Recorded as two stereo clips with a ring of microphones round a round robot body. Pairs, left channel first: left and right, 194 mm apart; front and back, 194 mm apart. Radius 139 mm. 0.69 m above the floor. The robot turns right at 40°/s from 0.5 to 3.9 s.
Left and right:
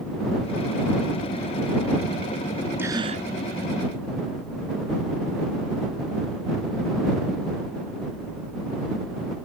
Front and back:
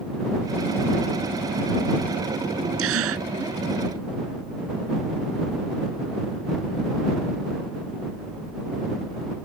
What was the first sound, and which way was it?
A gasp, 175° right.